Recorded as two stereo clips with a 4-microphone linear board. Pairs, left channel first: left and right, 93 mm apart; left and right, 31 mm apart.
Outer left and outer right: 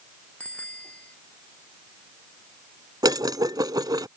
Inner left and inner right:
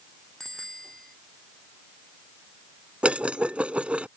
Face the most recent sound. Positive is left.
turn(degrees=-45)  # may be behind; listen again after turning